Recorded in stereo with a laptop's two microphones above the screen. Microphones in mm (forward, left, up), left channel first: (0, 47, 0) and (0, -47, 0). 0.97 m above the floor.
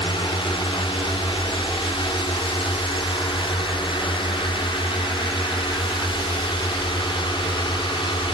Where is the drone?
65° left (ahead or behind).